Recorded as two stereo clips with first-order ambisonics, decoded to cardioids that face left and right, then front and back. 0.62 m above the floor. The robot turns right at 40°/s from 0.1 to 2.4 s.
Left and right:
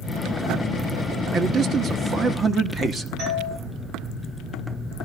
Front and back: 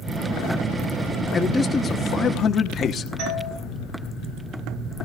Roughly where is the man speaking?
Right.